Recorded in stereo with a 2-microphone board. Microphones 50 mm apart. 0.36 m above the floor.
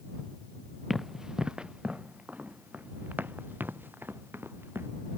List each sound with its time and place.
0.9 s running footsteps: 10° right (ahead or behind); by 4.9 s 50° right (ahead or behind)